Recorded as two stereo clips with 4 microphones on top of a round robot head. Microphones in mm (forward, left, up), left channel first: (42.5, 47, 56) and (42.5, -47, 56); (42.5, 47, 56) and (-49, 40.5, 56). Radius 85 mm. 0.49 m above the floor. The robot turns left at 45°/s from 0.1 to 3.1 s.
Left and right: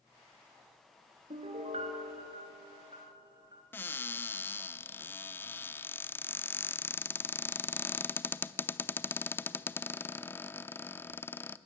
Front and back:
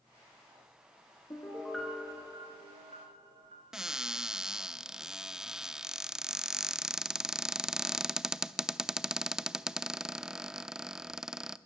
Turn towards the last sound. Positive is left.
turn(degrees=110)